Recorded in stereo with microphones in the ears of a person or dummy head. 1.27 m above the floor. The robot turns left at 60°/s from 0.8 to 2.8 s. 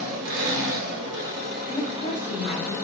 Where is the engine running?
80° right, 1.0 m; by 2.9 s 160° left, 1.0 m.